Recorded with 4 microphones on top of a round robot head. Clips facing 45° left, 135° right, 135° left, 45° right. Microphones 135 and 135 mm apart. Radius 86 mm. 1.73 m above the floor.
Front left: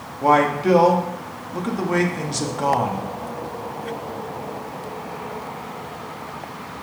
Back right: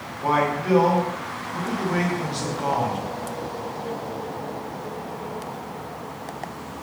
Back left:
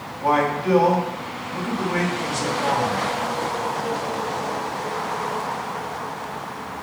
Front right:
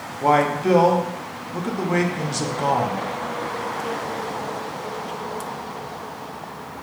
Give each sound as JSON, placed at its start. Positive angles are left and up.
{"t": 0.2, "sound": "a man speaking", "azimuth_deg": 0, "distance_m": 1.4}